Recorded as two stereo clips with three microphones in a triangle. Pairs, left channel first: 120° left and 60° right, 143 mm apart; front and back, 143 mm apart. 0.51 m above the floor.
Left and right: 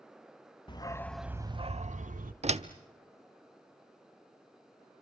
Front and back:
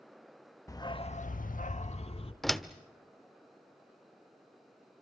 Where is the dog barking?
65° left, 0.8 m; by 2.3 s 45° right, 1.1 m.